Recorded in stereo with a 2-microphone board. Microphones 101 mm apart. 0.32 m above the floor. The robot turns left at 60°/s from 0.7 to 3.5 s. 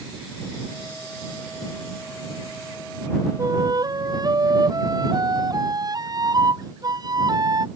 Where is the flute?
35° right (ahead or behind); by 7.7 s 40° right (ahead or behind).